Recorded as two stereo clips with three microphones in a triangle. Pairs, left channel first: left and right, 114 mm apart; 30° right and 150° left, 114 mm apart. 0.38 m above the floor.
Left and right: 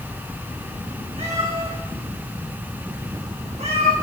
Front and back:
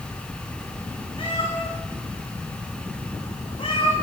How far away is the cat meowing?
About 4.5 m.